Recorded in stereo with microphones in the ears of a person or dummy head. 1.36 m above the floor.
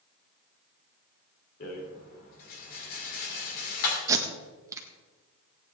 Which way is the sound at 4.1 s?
15° right (ahead or behind).